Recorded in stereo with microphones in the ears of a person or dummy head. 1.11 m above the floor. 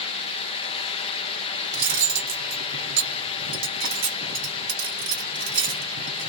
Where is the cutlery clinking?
65° right (ahead or behind), 1.2 m.